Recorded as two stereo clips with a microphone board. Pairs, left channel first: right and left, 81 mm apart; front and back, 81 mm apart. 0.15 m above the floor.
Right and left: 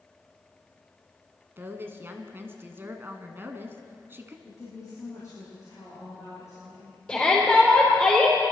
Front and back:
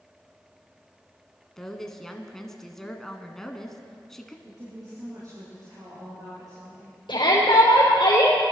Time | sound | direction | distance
1.6 | a woman speaking | 80° left | 1.2 m
4.5 | a woman speaking | 140° right | 5.5 m
7.1 | a shout | 10° right | 4 m